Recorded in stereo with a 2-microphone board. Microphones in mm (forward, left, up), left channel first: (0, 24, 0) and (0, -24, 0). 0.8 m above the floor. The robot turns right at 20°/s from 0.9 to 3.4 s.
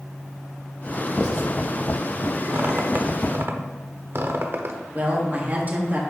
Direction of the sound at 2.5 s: 45° right (ahead or behind).